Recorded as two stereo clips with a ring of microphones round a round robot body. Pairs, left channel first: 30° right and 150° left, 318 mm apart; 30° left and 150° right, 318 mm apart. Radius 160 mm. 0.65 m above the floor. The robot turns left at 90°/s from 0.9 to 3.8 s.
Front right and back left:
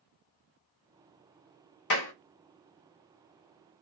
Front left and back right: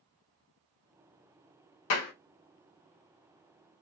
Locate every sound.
1.9 s a clap: 5° left, 1.7 m; by 2.1 s 15° right, 1.7 m